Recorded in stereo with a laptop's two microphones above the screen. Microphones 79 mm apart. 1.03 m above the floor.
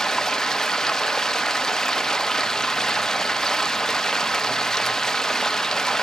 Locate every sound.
0.0 s running water: 5° left (ahead or behind), 0.9 m